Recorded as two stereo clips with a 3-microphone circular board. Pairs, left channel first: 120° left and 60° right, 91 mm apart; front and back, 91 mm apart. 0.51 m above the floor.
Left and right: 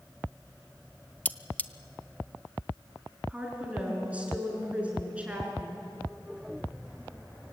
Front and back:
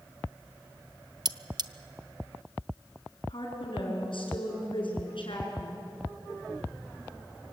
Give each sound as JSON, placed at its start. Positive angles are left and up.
{"t": 1.2, "sound": "cutlery clinking", "azimuth_deg": -175, "distance_m": 0.6}
{"t": 3.3, "sound": "a woman speaking", "azimuth_deg": 15, "distance_m": 5.5}